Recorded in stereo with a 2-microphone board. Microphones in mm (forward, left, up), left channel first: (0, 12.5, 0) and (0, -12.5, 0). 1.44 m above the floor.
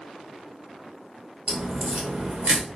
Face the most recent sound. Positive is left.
turn(degrees=-50)  # may be behind; listen again after turning